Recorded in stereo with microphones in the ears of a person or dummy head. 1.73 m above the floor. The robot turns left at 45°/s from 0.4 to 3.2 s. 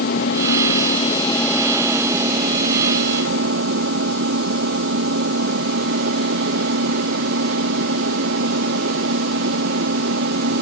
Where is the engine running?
60° left; by 10.6 s 65° right.